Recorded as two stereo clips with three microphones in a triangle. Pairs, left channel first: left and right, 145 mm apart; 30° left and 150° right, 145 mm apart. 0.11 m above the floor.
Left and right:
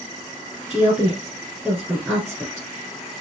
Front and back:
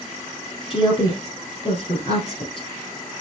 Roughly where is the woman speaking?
Ahead.